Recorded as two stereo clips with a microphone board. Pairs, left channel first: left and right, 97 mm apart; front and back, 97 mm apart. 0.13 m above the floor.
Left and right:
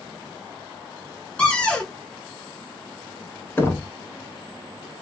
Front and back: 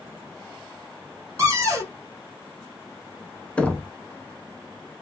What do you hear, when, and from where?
1.4 s a cupboard door: 160° left, 1.1 m
3.6 s knocking: 65° left, 0.8 m